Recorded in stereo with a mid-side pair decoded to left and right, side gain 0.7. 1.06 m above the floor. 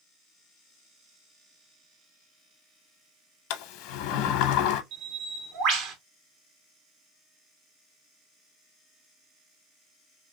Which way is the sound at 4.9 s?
55° right.